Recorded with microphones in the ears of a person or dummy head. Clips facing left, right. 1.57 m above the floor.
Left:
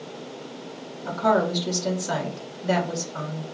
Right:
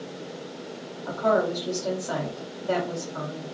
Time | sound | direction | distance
1.1 | a woman speaking | 20° left (ahead or behind) | 1.3 m